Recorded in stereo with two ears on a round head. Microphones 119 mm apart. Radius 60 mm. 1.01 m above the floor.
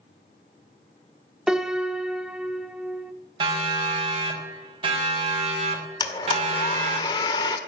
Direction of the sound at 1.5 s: 5° right (ahead or behind).